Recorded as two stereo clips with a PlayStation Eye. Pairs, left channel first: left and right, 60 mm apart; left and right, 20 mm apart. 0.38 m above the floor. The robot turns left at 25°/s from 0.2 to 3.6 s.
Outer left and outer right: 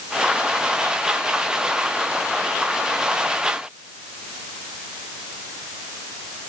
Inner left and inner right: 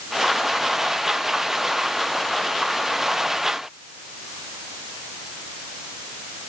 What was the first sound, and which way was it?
Only background noise.